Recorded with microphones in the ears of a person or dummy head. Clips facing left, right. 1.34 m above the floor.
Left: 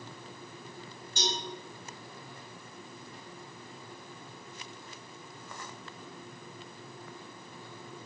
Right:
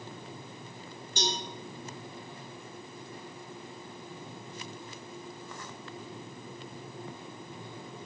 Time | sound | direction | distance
1.2 | a cowbell | 55° right (ahead or behind) | 0.7 m